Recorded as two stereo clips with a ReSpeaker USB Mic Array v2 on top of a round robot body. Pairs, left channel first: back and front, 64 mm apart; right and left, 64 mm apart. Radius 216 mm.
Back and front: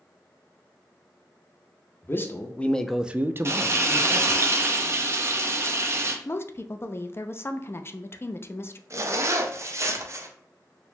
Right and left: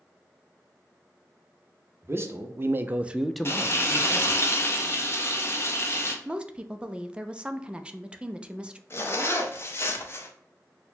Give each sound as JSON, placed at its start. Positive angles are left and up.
{"t": 2.0, "sound": "a man speaking", "azimuth_deg": 130, "distance_m": 0.9}
{"t": 3.5, "sound": "frying", "azimuth_deg": -45, "distance_m": 0.9}
{"t": 6.2, "sound": "a woman speaking", "azimuth_deg": 155, "distance_m": 0.6}
{"t": 8.9, "sound": "a zipper", "azimuth_deg": -40, "distance_m": 0.7}